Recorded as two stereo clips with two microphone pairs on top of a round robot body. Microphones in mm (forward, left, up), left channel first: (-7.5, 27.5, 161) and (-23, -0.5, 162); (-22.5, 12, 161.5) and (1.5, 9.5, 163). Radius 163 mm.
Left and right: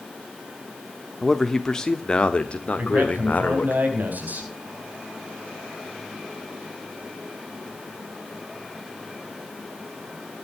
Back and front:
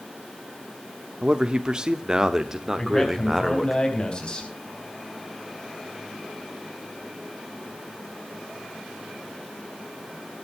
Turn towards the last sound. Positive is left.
turn(degrees=-140)